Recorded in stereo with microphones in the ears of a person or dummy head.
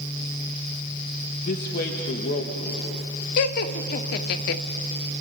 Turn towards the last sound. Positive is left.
turn(degrees=55)  # may be behind; listen again after turning